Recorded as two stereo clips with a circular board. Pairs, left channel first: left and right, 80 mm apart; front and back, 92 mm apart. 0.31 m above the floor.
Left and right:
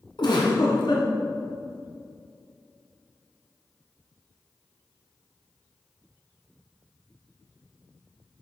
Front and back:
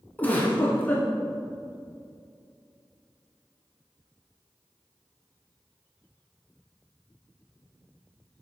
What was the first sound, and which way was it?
A giggle, 70° left.